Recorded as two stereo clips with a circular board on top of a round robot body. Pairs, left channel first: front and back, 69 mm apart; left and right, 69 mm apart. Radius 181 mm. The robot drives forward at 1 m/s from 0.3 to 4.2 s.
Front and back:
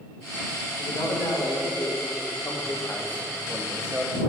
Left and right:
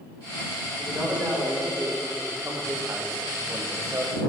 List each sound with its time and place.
0.8 s a man speaking: 15° right, 3 m; by 4.2 s 135° right, 1.3 m